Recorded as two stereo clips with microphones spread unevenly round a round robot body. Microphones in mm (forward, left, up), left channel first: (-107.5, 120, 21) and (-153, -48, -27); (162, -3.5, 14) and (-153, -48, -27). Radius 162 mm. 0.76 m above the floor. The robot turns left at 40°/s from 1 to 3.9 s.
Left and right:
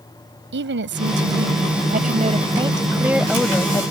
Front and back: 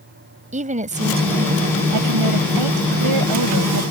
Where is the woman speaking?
105° right; by 3.9 s 140° left.